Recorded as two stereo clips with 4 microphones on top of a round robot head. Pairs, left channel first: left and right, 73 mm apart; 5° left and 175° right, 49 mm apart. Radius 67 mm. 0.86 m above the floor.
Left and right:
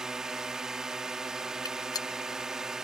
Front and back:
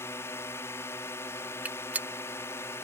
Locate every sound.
0.0 s a drone: 10° right
1.6 s a gunshot: 130° left